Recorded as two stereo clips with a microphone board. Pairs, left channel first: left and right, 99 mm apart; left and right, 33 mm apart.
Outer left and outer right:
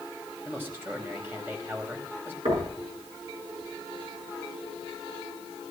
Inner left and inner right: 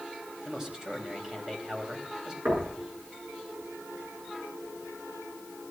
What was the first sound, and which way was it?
A man speaking, 20° right (ahead or behind).